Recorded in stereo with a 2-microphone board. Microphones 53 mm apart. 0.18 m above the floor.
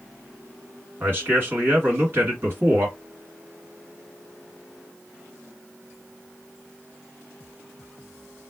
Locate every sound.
1.0 s a man speaking: 40° right (ahead or behind), 2 m